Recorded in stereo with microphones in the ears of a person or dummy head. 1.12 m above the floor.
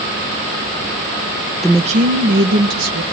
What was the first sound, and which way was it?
A woman speaking, centre (ahead or behind).